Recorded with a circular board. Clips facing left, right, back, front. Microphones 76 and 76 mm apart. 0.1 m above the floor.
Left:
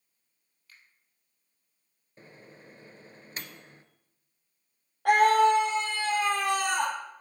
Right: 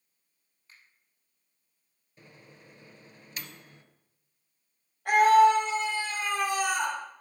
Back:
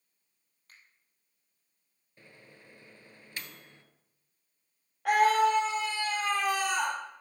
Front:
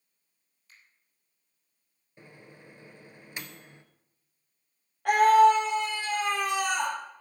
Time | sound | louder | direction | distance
0.7 | a finger snap | even, even | 150° right | 3 m
2.2 | a microwave | left 3 dB, front 5 dB | 55° left | 1.1 m
5.0 | a scream | right 1 dB, front 5 dB | 90° left | 4 m